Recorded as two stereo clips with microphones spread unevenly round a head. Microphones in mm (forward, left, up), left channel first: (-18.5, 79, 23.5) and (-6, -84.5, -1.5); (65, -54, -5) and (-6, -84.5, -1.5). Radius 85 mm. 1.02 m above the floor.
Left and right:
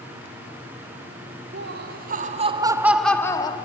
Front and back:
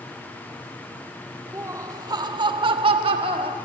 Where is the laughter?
105° right, 2.5 m; by 3.6 s 160° left, 2.0 m.